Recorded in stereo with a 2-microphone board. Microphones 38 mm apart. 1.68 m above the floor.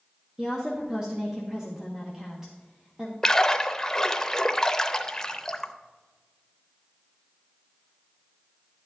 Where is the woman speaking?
15° right (ahead or behind), 1.2 m.